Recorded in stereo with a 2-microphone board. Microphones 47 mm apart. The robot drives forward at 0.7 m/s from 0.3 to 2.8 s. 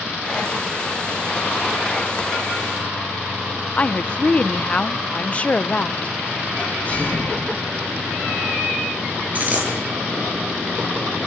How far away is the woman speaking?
About 0.7 m.